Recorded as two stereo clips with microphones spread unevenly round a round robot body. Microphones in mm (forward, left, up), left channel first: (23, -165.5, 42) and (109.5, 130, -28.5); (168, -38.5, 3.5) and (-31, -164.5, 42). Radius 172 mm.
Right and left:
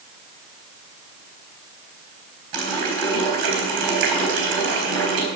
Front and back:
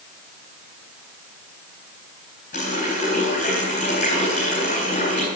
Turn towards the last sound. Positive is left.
turn(degrees=100)